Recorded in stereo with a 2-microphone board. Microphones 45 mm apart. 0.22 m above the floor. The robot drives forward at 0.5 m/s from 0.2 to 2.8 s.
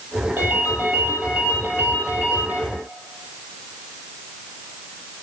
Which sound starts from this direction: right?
A ringtone, at 0.4 s.